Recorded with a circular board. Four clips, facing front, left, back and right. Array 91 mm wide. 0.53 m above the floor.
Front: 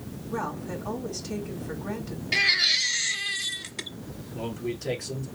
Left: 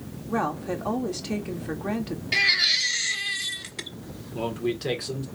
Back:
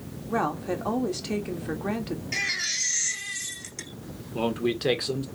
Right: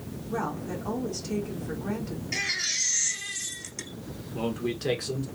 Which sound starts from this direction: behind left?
A woman speaking, at 0.3 s.